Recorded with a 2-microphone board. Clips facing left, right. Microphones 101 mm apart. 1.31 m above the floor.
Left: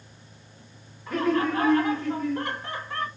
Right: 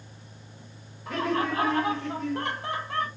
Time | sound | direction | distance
1.1 | laughter | 85° right | 1.3 m